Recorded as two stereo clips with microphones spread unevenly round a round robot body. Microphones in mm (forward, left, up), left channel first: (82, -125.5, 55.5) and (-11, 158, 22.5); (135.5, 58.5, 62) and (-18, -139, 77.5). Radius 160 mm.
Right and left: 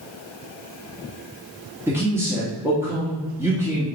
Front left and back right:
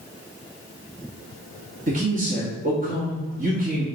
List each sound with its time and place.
1.9 s a man speaking: straight behind, 1.6 m